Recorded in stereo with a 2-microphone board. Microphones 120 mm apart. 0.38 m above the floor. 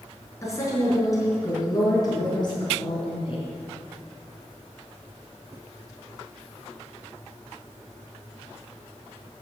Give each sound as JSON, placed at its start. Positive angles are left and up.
{"t": 0.4, "sound": "a woman speaking", "side_deg": 25, "distance_m": 4.5}